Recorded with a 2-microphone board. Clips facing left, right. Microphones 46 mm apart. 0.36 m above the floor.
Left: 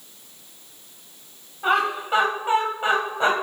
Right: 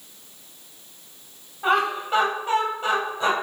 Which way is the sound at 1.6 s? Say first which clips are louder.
Even; centre (ahead or behind).